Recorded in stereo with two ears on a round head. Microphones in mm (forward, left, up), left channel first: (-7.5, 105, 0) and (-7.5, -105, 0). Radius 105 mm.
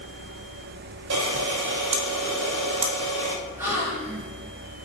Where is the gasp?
10° right (ahead or behind), 2.5 m.